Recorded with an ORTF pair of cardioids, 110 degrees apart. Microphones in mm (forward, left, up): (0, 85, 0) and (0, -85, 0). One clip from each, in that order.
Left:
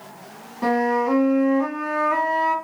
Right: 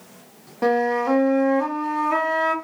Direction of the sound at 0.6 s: 30° right.